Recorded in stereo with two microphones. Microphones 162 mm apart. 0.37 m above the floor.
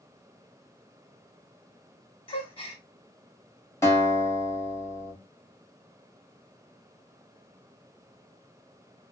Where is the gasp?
35° left (ahead or behind), 0.7 m.